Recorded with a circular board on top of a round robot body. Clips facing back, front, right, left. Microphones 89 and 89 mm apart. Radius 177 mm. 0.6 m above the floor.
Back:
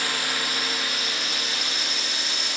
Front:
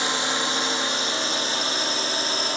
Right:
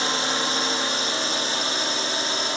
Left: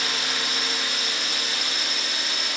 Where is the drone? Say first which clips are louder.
Front 4 dB, right 5 dB; 50° right; by 2.6 s 40° right.